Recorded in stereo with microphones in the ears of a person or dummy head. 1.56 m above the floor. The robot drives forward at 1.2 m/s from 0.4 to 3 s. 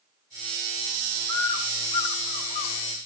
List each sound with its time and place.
1.3 s a bird: 15° left (ahead or behind), 2 m; by 3.0 s 25° left (ahead or behind), 1.3 m